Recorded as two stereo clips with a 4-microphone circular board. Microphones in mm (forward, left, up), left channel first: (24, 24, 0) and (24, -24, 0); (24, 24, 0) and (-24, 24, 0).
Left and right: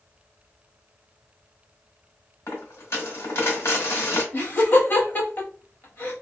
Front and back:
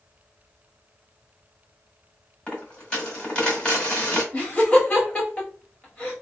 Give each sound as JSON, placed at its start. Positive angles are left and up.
{"t": 2.5, "sound": "a dropped coin", "azimuth_deg": 70, "distance_m": 1.9}
{"t": 4.3, "sound": "laughter", "azimuth_deg": 60, "distance_m": 1.7}